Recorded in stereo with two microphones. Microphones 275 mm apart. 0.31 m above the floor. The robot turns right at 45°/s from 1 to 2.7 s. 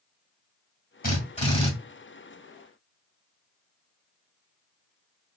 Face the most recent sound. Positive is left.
turn(degrees=-160)